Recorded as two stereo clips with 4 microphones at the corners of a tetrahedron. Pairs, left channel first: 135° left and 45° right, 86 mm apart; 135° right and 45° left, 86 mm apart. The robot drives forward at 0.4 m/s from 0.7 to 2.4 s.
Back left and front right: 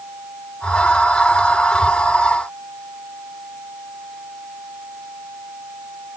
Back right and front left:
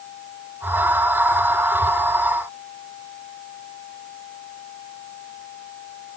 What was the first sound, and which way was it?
Only background noise.